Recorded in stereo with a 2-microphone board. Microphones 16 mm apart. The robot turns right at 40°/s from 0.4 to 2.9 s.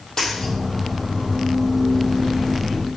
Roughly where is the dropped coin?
Left.